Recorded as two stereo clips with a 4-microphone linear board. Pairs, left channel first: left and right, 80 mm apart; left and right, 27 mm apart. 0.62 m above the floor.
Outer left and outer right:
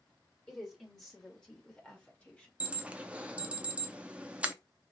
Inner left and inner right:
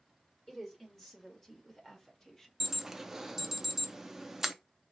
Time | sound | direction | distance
0.5 | a woman speaking | 5° left (ahead or behind) | 2.5 m
2.6 | an alarm | 15° right (ahead or behind) | 0.6 m